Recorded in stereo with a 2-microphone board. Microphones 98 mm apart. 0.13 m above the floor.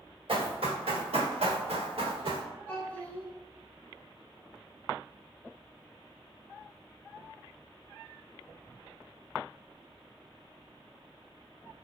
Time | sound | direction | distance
0.3 | running footsteps | 70° right (ahead or behind) | 1.5 m
2.7 | a child speaking | 15° left (ahead or behind) | 0.8 m